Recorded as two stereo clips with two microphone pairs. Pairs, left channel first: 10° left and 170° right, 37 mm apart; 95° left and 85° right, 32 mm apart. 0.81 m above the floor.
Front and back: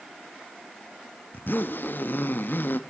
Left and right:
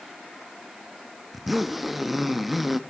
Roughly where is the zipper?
Ahead.